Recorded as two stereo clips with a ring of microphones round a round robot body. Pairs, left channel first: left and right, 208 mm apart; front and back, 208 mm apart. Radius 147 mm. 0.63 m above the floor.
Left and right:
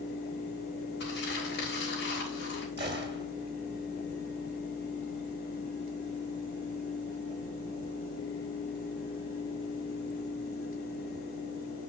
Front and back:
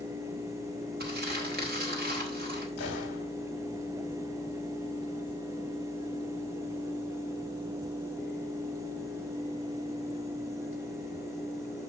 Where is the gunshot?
55° right, 2 m.